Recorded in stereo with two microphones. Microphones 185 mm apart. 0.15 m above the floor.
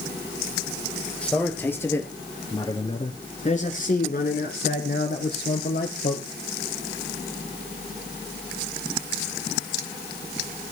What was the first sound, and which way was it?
A man speaking, 5° left (ahead or behind).